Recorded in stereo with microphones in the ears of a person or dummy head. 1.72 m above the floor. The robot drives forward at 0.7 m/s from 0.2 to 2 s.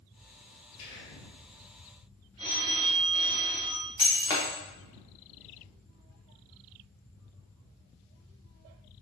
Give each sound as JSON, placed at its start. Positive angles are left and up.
{"t": 0.8, "sound": "whispering", "side_deg": 65, "distance_m": 2.0}
{"t": 2.4, "sound": "a phone ringing", "side_deg": -25, "distance_m": 0.9}
{"t": 4.0, "sound": "breaking glass", "side_deg": 20, "distance_m": 0.8}